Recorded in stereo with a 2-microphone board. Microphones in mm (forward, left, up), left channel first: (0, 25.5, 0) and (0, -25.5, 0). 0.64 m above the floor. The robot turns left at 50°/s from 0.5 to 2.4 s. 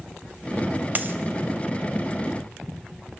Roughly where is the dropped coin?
Right.